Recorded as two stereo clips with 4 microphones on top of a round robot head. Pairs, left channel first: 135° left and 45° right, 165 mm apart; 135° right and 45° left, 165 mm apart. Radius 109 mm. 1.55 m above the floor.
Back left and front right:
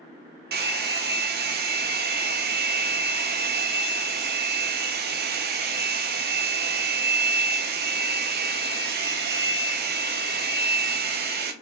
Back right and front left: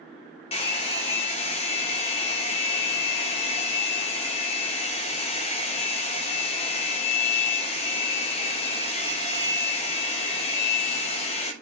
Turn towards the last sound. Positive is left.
turn(degrees=-75)